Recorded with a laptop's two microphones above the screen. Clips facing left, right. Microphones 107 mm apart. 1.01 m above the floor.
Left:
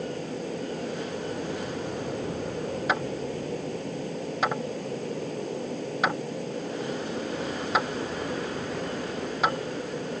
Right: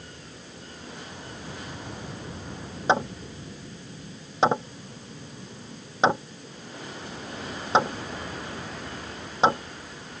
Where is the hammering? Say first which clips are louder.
Right 7 dB; 30° right (ahead or behind).